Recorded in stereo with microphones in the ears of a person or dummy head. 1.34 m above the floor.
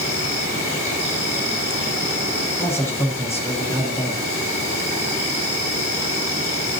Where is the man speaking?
15° left (ahead or behind), 6 m.